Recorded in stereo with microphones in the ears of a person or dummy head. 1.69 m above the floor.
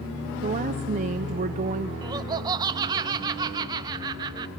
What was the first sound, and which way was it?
A woman speaking, 40° right (ahead or behind).